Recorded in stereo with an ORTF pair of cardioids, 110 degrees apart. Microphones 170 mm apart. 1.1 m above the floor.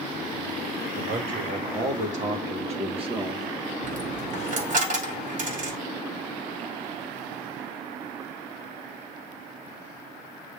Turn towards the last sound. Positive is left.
turn(degrees=-50)